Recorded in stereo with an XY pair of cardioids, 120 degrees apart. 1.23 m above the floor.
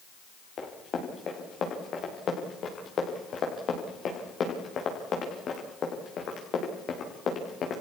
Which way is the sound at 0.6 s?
45° left.